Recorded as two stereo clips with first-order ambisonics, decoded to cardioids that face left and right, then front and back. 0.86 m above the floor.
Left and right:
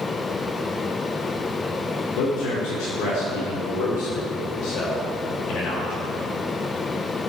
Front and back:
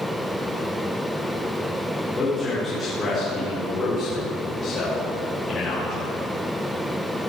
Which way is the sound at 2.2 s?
80° left.